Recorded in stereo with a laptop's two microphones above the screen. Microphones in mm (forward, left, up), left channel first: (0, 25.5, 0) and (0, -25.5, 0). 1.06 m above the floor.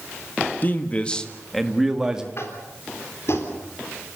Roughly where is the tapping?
Left.